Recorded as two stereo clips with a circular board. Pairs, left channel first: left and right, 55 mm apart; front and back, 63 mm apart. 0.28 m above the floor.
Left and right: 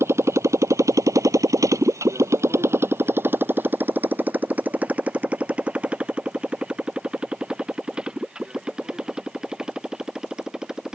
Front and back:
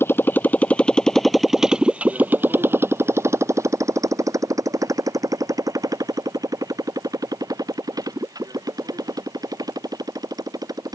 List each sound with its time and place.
0.0 s a motorcycle: 50° right; by 11.0 s 165° right